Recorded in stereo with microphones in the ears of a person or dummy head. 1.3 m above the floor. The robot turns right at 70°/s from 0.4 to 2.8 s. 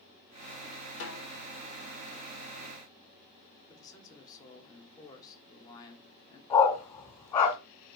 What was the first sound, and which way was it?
A snare drum, 75° left (ahead or behind).